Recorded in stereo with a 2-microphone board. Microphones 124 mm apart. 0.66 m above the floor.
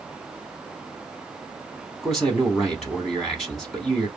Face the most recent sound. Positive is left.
turn(degrees=0)  # may be behind; listen again after turning